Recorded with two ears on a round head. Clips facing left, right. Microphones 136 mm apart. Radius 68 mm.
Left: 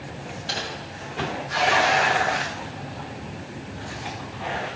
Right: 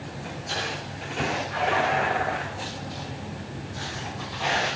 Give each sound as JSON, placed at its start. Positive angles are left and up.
{"t": 0.5, "sound": "typing on a keyboard", "side_deg": 75, "distance_m": 8.0}